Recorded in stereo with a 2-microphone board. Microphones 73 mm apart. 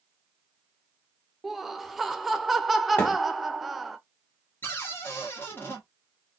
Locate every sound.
1.4 s laughter: centre (ahead or behind), 0.6 m
3.0 s a thud: 20° left (ahead or behind), 1.6 m
4.6 s a cupboard door: 30° left (ahead or behind), 1.2 m